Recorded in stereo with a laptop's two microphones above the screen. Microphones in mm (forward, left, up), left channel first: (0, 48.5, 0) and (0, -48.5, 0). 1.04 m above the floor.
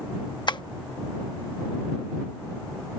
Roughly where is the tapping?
Left.